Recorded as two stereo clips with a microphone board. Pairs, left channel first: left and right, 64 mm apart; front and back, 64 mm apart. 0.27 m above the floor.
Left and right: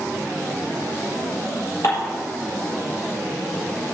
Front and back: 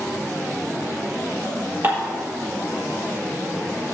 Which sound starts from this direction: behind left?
Dishes clattering, at 1.8 s.